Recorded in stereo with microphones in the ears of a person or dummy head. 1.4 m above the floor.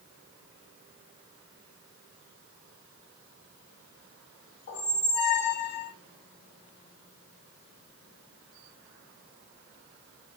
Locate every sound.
4.7 s a squeak: 60° left (ahead or behind), 0.9 m